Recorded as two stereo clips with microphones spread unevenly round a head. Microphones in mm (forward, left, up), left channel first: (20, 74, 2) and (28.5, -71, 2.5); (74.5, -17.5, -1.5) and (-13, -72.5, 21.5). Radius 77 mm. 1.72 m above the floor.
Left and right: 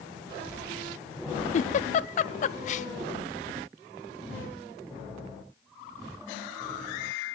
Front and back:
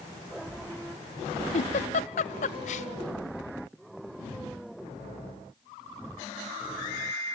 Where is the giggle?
50° left, 0.6 m.